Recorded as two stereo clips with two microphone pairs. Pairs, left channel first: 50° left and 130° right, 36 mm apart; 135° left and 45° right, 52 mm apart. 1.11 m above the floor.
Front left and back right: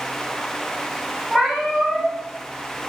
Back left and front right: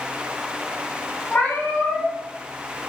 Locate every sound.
1.3 s a cat meowing: 160° left, 1.1 m